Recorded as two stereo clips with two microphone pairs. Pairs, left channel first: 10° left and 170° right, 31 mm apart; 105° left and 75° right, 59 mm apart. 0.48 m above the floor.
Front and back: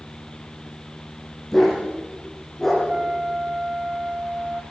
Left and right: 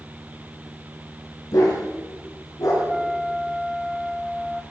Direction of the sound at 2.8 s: 150° right.